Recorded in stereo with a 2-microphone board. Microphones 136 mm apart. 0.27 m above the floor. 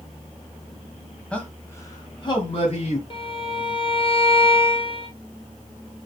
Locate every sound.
1.3 s a man speaking: 10° left (ahead or behind), 1.3 m; by 3.0 s 50° left (ahead or behind), 1.7 m
3.1 s a violin: 40° left (ahead or behind), 1.1 m